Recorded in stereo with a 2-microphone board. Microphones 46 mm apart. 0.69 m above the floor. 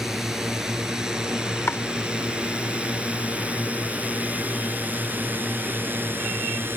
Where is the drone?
10° right (ahead or behind); by 6.8 s 55° right (ahead or behind).